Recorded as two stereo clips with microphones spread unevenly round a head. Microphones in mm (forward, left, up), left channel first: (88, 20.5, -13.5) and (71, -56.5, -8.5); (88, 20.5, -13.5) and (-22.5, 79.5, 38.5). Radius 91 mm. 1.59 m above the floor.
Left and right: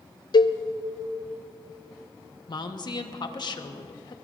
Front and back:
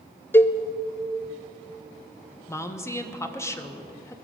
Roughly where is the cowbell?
Ahead left.